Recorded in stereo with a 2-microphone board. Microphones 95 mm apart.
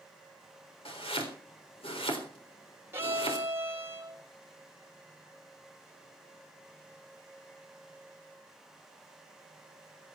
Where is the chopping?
80° left, 3.5 m.